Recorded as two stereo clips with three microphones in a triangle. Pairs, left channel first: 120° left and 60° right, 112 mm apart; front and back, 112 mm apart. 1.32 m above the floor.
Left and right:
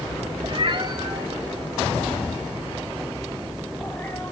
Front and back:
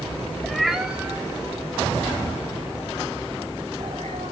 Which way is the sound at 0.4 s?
85° right.